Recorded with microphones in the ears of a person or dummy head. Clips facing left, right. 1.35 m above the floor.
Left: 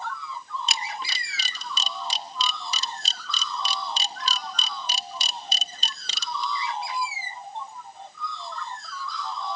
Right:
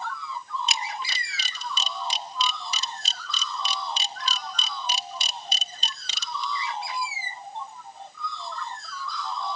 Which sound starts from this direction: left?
A camera shutter, at 0.7 s.